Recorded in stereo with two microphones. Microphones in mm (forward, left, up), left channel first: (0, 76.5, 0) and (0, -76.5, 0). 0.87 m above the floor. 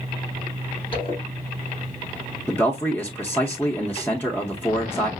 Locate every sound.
0.9 s a zipper: 35° left (ahead or behind), 2 m
2.5 s a man speaking: 10° left (ahead or behind), 0.7 m